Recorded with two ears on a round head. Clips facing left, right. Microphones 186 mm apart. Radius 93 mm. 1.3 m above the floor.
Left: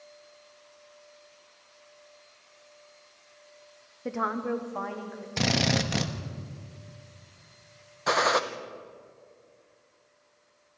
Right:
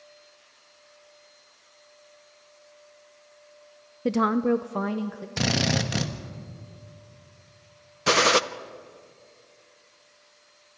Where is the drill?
5° right (ahead or behind), 1.2 m.